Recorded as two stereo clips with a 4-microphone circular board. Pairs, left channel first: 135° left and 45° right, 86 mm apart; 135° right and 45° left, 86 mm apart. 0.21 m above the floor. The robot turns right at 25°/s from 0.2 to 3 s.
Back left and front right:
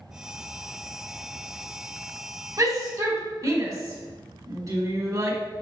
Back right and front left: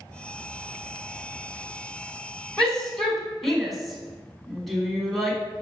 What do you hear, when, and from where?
2.6 s a shout: 55° right, 1.7 m; by 5.4 s 45° right, 1.7 m